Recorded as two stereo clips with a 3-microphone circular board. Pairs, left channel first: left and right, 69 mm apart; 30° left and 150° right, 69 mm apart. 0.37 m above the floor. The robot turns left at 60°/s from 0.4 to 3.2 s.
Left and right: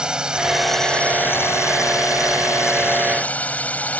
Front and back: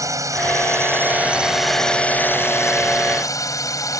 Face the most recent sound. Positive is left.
turn(degrees=25)